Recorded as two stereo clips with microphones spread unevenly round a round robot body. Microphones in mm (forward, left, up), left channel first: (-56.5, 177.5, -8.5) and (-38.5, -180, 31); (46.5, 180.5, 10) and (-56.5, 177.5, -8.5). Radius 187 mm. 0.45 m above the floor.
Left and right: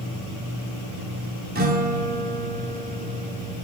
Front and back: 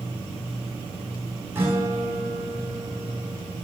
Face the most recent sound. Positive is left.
turn(degrees=-145)